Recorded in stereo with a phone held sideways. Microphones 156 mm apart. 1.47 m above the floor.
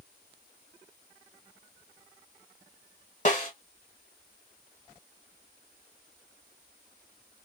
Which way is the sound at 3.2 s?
50° left (ahead or behind).